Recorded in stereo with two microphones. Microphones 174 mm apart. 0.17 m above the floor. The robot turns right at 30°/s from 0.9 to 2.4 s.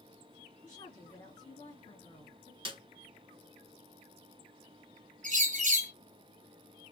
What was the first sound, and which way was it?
A woman speaking, 85° left.